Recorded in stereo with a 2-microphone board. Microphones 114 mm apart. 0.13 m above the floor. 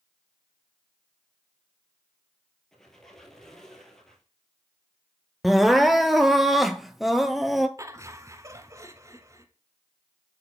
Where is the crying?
Centre (ahead or behind), 0.7 m.